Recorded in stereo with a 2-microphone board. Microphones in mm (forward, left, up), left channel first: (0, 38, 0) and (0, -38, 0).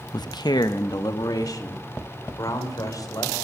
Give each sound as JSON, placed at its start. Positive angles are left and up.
{"t": 0.1, "sound": "a man speaking", "side_deg": 65, "distance_m": 0.6}